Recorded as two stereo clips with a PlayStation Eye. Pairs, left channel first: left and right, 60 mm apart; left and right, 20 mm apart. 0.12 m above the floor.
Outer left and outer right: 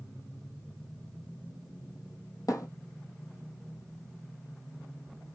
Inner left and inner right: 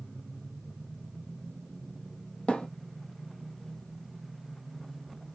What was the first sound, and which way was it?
A thud, 70° left (ahead or behind).